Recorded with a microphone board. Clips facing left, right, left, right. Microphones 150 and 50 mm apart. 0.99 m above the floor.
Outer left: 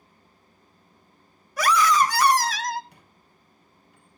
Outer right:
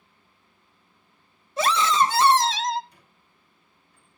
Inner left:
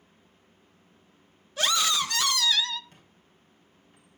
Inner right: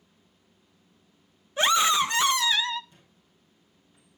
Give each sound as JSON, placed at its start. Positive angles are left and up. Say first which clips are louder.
{"t": 1.6, "sound": "a scream", "louder": "outer left 1 dB, inner right 4 dB", "side_deg": -25, "distance_m": 0.7}
{"t": 2.9, "sound": "a squeak", "louder": "outer left 3 dB, inner left 2 dB", "side_deg": 70, "distance_m": 4.0}